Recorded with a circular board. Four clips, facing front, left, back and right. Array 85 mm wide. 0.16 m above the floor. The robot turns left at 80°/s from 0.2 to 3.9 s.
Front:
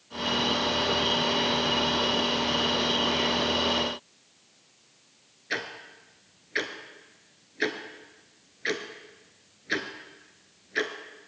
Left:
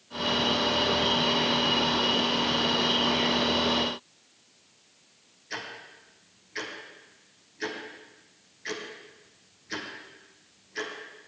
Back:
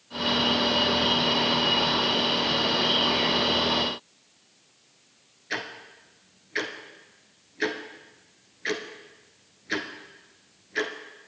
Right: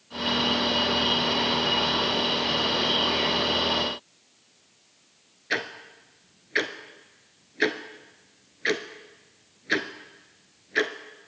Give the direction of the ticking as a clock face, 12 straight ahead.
3 o'clock.